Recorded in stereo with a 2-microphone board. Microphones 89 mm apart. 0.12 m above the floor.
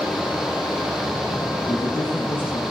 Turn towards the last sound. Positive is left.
turn(degrees=50)  # may be behind; listen again after turning